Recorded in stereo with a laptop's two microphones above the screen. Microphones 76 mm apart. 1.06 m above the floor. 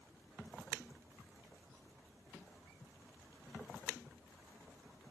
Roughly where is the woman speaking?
I don't hear a woman speaking.